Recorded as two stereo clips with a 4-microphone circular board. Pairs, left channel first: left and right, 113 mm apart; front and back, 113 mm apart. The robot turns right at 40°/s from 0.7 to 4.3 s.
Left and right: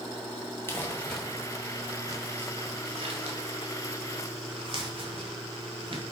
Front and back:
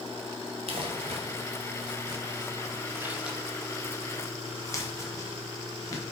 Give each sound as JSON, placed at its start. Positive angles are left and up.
{"t": 0.7, "sound": "crumpling", "azimuth_deg": 155, "distance_m": 1.6}